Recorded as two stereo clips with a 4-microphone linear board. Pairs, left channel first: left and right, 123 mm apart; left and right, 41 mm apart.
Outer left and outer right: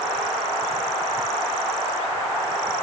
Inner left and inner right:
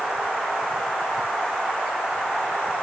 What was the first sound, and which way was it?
Only background noise.